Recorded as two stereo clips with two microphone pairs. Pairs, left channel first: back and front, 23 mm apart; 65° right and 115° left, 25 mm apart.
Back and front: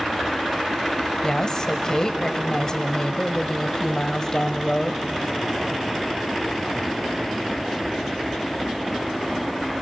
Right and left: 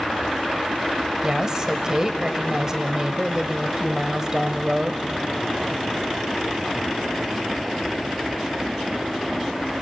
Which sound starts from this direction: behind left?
A woman speaking, at 1.2 s.